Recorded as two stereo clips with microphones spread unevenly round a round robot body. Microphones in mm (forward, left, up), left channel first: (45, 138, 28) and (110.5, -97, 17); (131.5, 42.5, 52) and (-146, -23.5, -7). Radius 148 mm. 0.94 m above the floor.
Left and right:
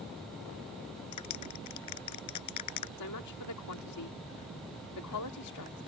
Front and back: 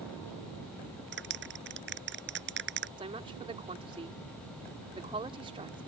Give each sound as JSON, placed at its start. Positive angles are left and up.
{"t": 1.1, "sound": "a clap", "azimuth_deg": 140}
{"t": 3.0, "sound": "a woman speaking", "azimuth_deg": 120}